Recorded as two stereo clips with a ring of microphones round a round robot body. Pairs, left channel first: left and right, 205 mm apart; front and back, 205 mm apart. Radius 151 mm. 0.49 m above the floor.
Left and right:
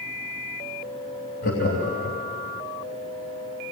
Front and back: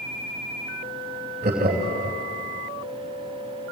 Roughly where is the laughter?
Behind left.